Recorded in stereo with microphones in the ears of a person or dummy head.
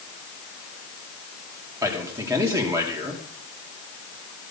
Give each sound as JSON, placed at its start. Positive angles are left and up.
{"t": 1.8, "sound": "a man speaking", "side_deg": -15, "distance_m": 3.0}